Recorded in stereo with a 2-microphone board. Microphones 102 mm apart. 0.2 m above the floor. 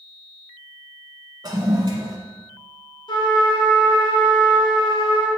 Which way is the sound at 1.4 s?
40° right (ahead or behind).